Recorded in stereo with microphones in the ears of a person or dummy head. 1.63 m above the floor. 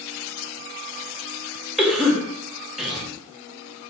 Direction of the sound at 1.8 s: 5° right (ahead or behind).